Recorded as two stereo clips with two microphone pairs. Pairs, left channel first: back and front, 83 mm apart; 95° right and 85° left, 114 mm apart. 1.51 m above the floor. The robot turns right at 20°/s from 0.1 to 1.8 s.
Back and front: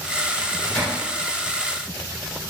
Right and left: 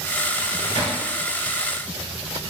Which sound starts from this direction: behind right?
A microwave, at 0.3 s.